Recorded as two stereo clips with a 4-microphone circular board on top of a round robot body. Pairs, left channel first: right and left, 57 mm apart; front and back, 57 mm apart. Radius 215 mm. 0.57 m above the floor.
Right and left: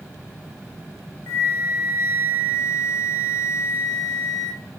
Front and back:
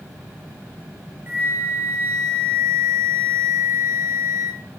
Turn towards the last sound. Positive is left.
turn(degrees=-125)